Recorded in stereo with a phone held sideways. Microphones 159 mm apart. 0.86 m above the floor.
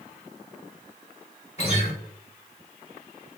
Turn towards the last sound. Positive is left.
turn(degrees=40)  # may be behind; listen again after turning